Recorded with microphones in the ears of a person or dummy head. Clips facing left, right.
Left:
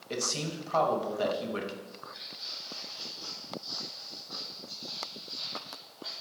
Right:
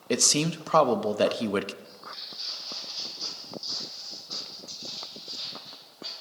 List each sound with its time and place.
0.1 s a man speaking: 75° right (ahead or behind), 0.8 m
1.8 s footsteps: 50° right (ahead or behind), 1.9 m; by 6.1 s 35° right (ahead or behind), 4.5 m